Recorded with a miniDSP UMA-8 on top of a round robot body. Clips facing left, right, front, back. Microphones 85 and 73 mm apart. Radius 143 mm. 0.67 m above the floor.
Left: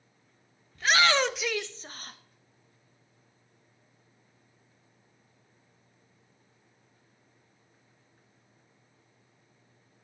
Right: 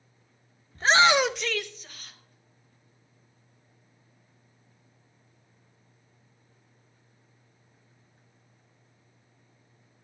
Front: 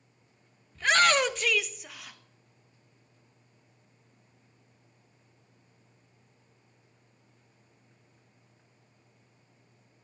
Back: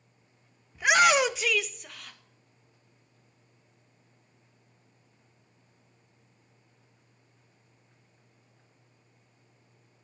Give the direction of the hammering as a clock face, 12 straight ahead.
I don't hear hammering.